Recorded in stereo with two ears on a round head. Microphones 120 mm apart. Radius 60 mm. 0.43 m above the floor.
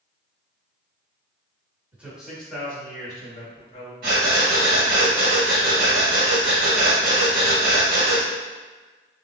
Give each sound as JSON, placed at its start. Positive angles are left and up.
{"t": 1.9, "sound": "a man speaking", "side_deg": -10, "distance_m": 1.5}
{"t": 4.0, "sound": "breathing", "side_deg": -70, "distance_m": 1.7}